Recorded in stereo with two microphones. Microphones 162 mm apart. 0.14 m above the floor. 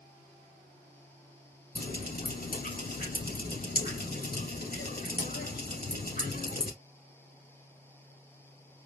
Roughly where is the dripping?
Left.